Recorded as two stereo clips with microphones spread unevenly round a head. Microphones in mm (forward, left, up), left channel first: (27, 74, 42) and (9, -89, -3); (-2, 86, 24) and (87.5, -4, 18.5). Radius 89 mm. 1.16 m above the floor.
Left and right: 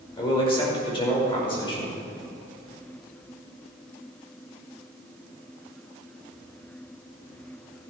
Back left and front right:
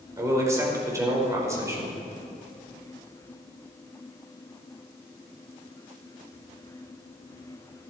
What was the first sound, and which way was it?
A man speaking, 20° left.